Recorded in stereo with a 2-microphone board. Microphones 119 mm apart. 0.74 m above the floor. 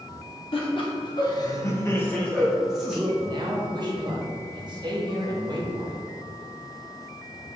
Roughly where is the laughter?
Left.